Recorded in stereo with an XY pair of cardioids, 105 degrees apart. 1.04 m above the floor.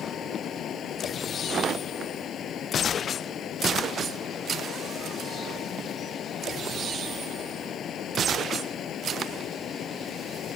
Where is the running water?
60° left.